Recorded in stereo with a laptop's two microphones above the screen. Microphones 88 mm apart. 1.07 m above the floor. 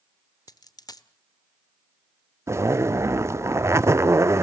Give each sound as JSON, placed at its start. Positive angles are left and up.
{"t": 0.5, "sound": "a dropped coin", "side_deg": 45, "distance_m": 1.0}
{"t": 2.5, "sound": "a zipper", "side_deg": -30, "distance_m": 0.6}